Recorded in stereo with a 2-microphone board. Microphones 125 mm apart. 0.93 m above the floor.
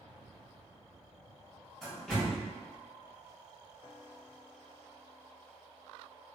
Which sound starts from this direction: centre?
A door slam, at 1.8 s.